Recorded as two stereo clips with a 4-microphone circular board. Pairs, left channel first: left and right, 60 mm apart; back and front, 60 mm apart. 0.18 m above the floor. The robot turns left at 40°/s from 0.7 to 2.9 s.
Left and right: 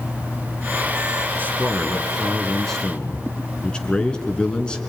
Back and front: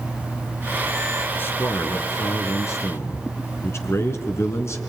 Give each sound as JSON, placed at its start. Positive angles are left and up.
{"t": 1.4, "sound": "a man speaking", "azimuth_deg": -135, "distance_m": 2.5}